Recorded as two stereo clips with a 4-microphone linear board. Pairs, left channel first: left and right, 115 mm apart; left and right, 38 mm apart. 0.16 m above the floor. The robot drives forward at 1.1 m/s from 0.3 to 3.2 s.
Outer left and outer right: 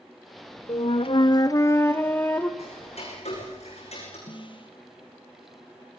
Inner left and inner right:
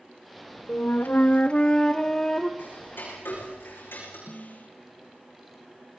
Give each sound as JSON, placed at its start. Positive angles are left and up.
{"t": 0.7, "sound": "a flute", "side_deg": 45, "distance_m": 0.6}
{"t": 2.6, "sound": "ticking", "side_deg": 65, "distance_m": 9.5}
{"t": 4.3, "sound": "a snare drum", "side_deg": 50, "distance_m": 3.5}